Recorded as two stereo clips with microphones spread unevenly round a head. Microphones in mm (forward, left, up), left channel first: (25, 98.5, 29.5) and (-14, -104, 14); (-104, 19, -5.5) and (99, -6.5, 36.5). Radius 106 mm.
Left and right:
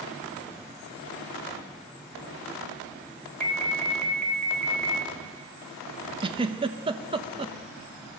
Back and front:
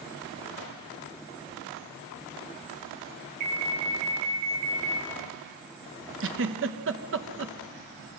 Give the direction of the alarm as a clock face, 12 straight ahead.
12 o'clock.